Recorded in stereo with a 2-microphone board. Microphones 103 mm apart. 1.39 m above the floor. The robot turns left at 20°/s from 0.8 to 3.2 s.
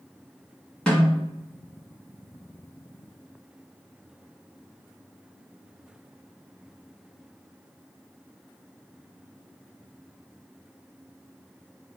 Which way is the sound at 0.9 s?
10° left (ahead or behind).